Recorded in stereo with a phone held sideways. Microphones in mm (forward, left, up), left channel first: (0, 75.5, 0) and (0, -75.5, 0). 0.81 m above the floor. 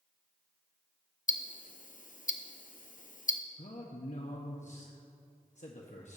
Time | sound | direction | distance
1.3 | ticking | 60° left (ahead or behind) | 0.6 m
3.6 | a man speaking | 50° left (ahead or behind) | 1.0 m